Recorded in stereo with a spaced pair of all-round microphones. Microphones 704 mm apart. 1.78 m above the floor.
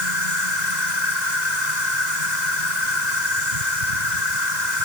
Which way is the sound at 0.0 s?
70° right (ahead or behind).